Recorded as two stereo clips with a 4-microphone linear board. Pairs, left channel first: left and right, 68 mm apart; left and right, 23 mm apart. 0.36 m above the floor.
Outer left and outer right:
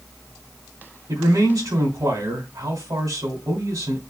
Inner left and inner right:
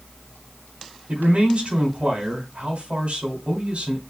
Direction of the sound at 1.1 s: 65° right (ahead or behind).